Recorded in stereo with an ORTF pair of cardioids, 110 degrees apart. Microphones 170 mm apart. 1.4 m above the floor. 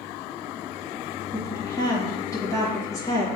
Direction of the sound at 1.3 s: 20° left.